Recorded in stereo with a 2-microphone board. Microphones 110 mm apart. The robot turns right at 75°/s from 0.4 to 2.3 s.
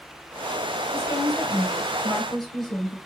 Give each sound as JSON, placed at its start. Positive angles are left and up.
{"t": 0.9, "sound": "a woman speaking", "azimuth_deg": 75, "distance_m": 1.1}